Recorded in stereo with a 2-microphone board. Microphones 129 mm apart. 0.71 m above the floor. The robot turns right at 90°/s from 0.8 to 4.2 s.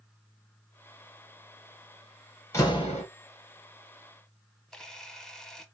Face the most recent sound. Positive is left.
turn(degrees=5)  # may be behind; listen again after turning